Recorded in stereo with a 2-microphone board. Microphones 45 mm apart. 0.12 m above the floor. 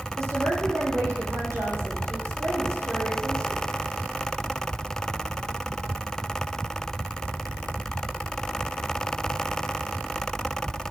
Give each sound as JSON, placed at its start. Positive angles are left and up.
{"t": 0.2, "sound": "a woman speaking", "side_deg": -75, "distance_m": 5.5}